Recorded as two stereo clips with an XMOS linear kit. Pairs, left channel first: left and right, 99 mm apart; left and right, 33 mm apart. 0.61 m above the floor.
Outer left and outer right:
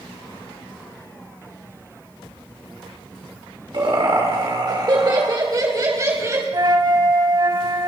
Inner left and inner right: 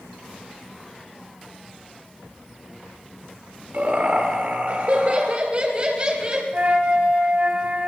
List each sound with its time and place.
3.7 s laughter: 60° right (ahead or behind), 2 m; by 6.4 s 30° right (ahead or behind), 3 m
6.5 s a flute: 45° right (ahead or behind), 1.2 m